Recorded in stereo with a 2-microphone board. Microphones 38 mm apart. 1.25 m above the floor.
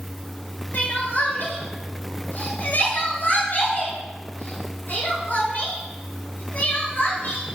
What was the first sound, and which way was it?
Crying, 60° left (ahead or behind).